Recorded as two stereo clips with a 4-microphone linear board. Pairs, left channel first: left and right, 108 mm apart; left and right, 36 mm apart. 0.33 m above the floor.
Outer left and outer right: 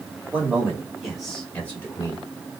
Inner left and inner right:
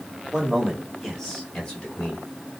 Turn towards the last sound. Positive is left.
turn(degrees=25)  # may be behind; listen again after turning